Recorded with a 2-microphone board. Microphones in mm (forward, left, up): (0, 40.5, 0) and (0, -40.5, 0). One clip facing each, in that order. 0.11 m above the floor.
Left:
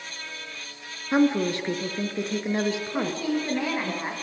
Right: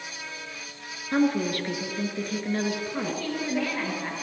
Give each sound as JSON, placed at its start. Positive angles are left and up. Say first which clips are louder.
{"t": 1.1, "sound": "a woman speaking", "louder": "left 2 dB", "side_deg": 25, "distance_m": 1.9}
{"t": 2.9, "sound": "a woman speaking", "louder": "left 3 dB", "side_deg": 20, "distance_m": 8.0}